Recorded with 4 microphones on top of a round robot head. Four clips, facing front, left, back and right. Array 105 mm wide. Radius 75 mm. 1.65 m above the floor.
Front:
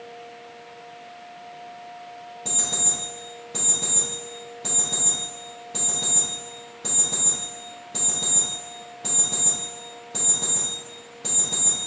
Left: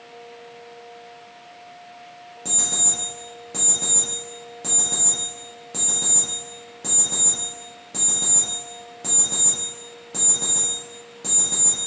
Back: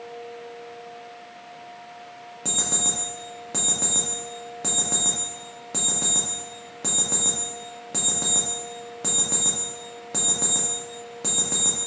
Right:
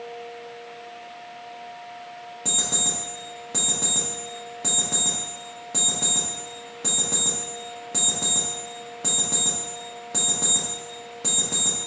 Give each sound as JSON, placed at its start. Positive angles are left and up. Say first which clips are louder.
{"t": 2.5, "sound": "an alarm clock", "louder": "right 1 dB, back 3 dB", "azimuth_deg": -165, "distance_m": 0.8}